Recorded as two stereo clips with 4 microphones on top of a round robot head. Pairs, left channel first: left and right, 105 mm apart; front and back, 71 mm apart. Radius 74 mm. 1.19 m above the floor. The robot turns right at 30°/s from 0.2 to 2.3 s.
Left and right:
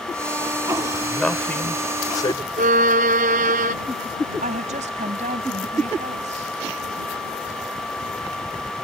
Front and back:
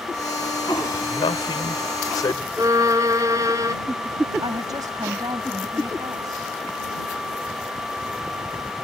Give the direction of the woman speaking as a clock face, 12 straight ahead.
4 o'clock.